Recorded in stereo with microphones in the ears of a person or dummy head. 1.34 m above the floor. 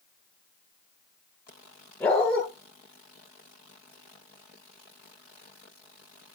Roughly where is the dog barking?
Centre.